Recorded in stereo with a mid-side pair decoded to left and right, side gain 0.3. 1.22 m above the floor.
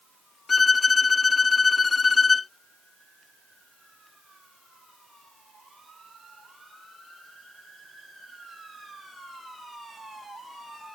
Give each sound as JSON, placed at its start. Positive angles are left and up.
{"t": 0.5, "sound": "a violin", "azimuth_deg": 50}